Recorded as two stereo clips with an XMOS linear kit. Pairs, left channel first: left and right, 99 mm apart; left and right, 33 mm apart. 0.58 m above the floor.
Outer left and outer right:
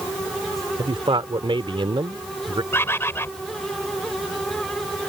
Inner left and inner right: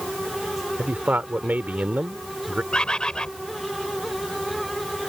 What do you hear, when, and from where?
0.8 s a man speaking: 60° right (ahead or behind)
2.7 s a bird: 25° left (ahead or behind)